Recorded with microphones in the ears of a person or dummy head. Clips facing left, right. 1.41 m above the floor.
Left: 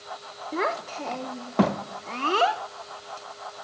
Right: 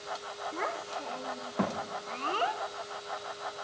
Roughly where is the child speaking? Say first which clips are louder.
Left 10 dB; left.